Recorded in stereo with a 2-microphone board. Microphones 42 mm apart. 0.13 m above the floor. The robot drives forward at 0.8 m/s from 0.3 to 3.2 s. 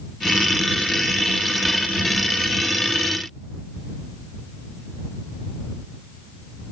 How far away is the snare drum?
No snare drum in this recording.